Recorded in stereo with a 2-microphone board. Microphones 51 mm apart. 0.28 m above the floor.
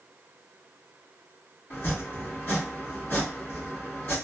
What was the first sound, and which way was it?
Chopping, 35° left (ahead or behind).